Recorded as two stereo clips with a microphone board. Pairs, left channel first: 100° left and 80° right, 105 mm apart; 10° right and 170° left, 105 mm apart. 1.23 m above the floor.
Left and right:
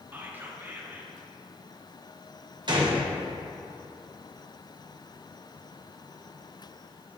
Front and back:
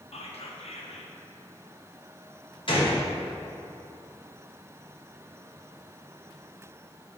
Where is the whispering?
10° right, 0.9 m.